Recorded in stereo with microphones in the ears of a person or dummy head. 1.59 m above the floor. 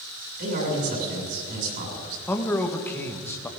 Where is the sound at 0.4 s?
55° right (ahead or behind), 6.5 m.